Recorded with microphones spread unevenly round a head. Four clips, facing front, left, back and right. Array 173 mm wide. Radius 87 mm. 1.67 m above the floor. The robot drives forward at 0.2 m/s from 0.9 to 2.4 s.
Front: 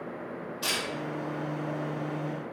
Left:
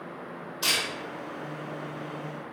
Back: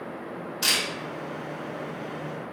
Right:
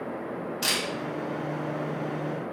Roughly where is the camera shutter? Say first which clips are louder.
Left 2 dB, back 3 dB; behind right.